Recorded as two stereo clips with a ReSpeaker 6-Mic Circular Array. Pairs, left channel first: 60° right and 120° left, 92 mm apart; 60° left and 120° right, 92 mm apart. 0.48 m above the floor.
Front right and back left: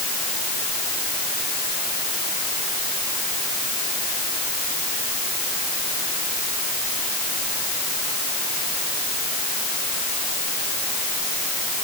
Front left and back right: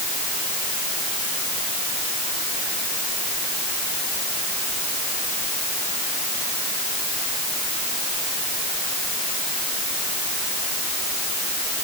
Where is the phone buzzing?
I don't hear a phone buzzing.